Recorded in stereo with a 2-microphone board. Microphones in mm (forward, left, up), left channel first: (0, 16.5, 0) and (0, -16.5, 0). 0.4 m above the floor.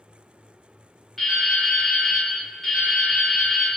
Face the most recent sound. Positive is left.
turn(degrees=5)  # may be behind; listen again after turning